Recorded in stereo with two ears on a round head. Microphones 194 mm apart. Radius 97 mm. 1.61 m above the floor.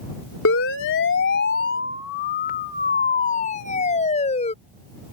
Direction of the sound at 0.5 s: 65° left (ahead or behind).